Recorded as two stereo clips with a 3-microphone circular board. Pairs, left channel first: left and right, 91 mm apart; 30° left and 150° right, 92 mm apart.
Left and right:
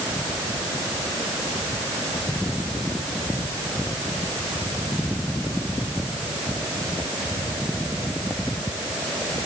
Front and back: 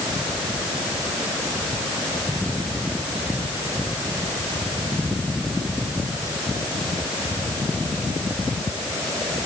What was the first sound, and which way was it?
Only background noise.